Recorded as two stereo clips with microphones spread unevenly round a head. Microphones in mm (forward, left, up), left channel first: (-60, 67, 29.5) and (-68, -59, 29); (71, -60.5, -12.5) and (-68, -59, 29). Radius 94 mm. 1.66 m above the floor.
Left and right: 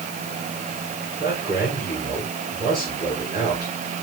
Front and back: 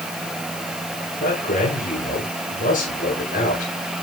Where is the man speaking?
15° right, 8 m.